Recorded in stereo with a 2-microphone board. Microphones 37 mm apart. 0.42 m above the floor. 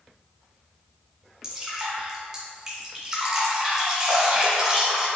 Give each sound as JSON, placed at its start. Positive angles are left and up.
{"t": 1.4, "sound": "dripping", "side_deg": -15, "distance_m": 1.2}